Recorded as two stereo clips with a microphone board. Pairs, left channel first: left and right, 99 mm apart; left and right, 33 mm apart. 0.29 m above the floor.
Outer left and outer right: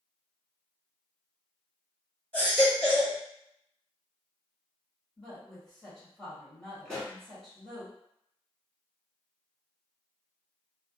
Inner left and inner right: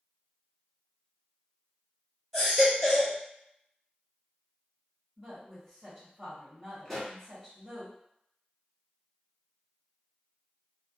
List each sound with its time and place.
2.3 s a baby crying: 15° left (ahead or behind), 1.4 m
5.2 s a woman speaking: 5° left (ahead or behind), 1.2 m
6.8 s a pop: 10° left (ahead or behind), 1.1 m